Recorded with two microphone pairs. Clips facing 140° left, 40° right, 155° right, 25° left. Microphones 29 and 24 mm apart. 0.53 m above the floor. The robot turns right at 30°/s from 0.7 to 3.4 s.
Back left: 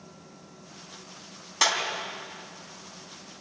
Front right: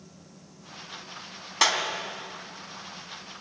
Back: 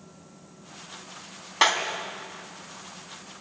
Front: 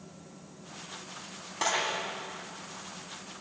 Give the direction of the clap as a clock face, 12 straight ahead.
4 o'clock.